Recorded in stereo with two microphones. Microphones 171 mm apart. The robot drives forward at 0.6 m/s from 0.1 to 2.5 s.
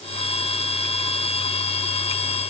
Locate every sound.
Only background noise.